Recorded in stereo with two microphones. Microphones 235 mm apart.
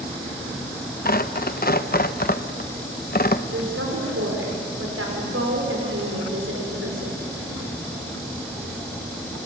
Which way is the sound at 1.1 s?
40° left (ahead or behind).